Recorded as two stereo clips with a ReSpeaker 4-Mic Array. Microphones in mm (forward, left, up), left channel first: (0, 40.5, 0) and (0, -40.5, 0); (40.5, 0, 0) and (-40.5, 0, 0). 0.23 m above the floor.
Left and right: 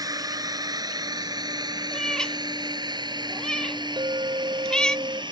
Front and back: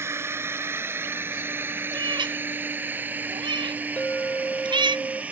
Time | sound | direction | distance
0.0 | a drone | 125° right | ?
1.9 | a cat meowing | 170° left | ?
4.0 | a clink | 70° right | ?